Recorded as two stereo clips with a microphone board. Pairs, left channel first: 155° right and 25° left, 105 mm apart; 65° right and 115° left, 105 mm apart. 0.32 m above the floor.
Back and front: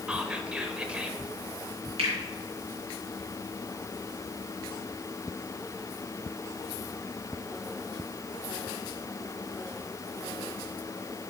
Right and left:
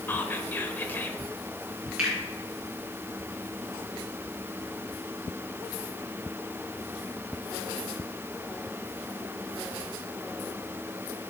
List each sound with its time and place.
0.1 s whispering: 40° right, 0.8 m
2.0 s a finger snap: 30° left, 3.5 m